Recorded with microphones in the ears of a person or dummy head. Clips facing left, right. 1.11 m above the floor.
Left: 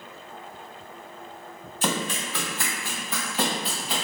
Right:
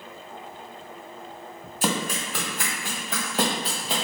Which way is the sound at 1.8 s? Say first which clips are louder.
Right 1 dB; 10° right (ahead or behind).